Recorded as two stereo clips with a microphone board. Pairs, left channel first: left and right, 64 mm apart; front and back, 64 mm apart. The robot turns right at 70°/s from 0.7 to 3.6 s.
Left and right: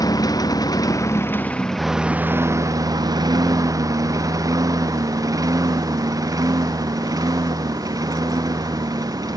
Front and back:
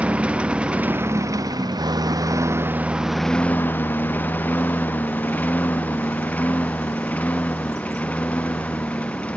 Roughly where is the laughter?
No laughter in this recording.